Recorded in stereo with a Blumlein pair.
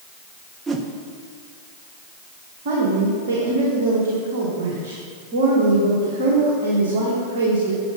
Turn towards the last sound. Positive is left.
turn(degrees=-55)